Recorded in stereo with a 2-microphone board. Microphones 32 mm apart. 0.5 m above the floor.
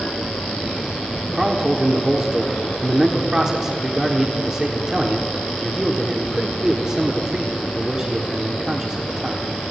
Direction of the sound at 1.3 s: 20° right (ahead or behind).